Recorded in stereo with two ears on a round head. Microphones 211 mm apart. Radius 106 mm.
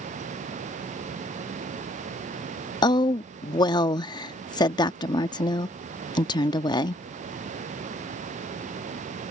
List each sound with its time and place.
2.8 s a woman speaking: 20° left (ahead or behind)